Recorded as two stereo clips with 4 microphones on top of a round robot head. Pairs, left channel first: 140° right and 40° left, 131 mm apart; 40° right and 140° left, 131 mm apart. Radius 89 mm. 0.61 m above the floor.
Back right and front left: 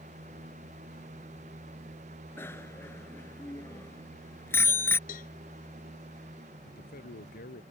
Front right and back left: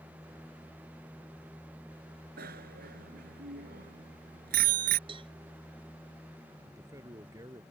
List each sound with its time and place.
2.4 s a bicycle bell: 145° left
5.1 s a cowbell: 165° right
6.7 s a man speaking: 150° right